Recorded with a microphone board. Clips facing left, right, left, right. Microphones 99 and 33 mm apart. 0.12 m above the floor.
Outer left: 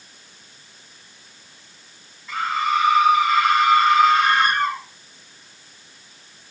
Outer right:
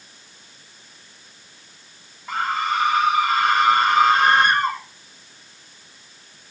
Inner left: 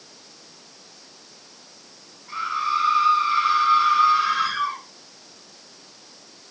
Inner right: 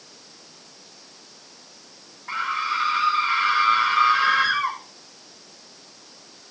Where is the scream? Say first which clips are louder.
Outer left 1 dB, inner left 1 dB; 60° right (ahead or behind), 8 m.